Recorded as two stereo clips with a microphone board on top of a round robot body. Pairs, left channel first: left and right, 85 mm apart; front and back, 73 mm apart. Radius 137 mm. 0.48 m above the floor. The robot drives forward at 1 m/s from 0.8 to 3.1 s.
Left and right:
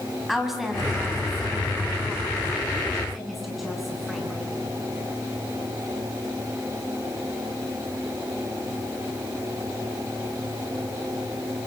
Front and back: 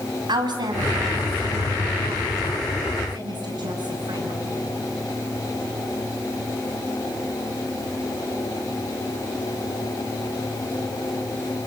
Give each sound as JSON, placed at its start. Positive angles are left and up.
{"t": 0.3, "sound": "a woman speaking", "azimuth_deg": -175, "distance_m": 5.0}